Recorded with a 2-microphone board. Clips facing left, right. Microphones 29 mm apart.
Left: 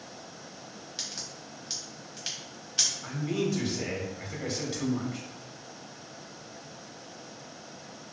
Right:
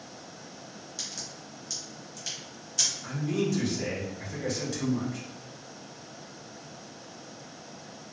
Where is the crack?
40° left (ahead or behind), 1.1 m.